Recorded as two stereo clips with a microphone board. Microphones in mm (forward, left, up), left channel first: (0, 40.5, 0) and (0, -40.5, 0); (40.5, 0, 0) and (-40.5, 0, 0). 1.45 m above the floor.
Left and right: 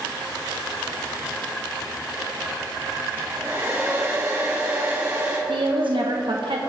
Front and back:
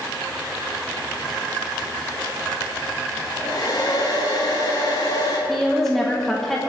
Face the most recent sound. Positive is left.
turn(degrees=-85)